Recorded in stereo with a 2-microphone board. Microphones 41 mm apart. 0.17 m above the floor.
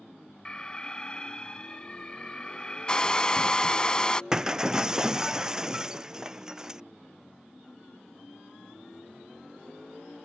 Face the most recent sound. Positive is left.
turn(degrees=-15)  # may be behind; listen again after turning